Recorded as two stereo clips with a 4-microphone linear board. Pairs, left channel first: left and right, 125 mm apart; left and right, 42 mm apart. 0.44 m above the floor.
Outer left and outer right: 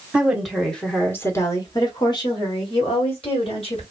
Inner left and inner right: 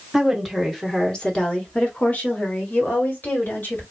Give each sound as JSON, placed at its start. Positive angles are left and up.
{"t": 0.1, "sound": "a woman speaking", "side_deg": -10, "distance_m": 1.2}